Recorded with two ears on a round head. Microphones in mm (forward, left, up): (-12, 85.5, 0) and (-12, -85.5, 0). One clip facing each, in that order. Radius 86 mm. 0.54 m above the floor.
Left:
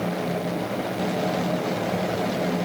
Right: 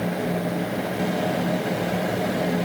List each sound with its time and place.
Only background noise.